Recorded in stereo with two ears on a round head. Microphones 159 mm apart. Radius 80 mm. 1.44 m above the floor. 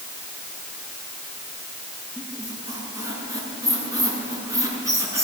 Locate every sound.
2.2 s a squeak: 20° right (ahead or behind), 6.5 m